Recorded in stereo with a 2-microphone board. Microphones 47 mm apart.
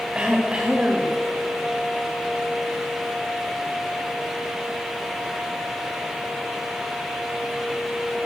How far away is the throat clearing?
About 2.5 m.